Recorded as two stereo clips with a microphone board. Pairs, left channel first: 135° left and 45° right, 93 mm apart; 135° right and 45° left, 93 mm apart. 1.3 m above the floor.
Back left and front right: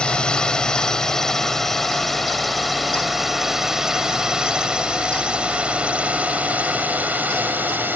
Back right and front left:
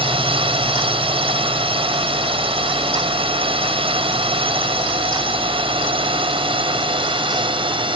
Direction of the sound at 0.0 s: 55° left.